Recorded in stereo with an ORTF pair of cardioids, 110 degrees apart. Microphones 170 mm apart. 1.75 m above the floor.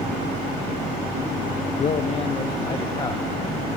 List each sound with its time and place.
1.8 s a man speaking: 45° left, 1.1 m; by 3.7 s 20° left, 2 m